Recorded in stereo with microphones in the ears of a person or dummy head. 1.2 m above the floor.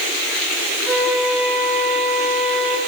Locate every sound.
0.9 s a flute: centre (ahead or behind), 4.5 m